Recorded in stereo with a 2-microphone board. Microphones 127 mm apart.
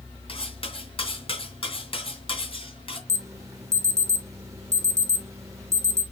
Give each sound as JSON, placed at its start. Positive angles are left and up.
{"t": 0.3, "sound": "cutlery clinking", "side_deg": 45, "distance_m": 2.5}
{"t": 3.1, "sound": "an alarm", "side_deg": -25, "distance_m": 1.1}